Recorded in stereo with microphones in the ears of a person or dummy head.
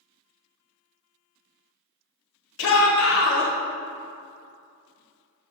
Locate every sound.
2.6 s a shout: 65° left (ahead or behind), 1.3 m